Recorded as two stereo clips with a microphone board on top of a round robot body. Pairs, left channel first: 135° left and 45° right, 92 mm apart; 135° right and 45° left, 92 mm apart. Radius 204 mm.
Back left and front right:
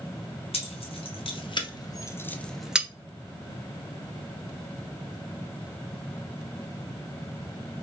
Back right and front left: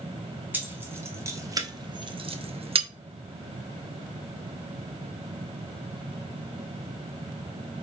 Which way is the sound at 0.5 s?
115° left.